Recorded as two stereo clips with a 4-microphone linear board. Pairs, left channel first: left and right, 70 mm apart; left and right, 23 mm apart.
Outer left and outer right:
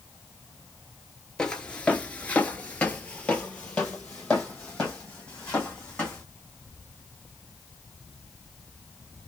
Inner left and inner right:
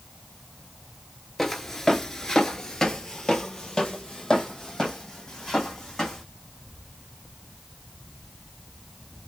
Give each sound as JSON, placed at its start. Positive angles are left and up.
{"t": 1.4, "sound": "footsteps", "side_deg": 15, "distance_m": 0.8}